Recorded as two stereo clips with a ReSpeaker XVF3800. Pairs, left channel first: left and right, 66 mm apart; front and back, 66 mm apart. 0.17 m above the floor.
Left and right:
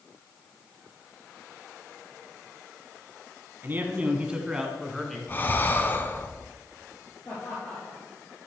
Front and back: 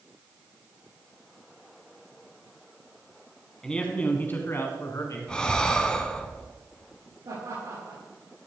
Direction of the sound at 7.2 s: 145° left.